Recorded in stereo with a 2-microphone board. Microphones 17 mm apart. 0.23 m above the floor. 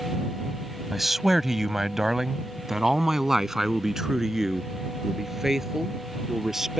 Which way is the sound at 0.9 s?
10° right (ahead or behind).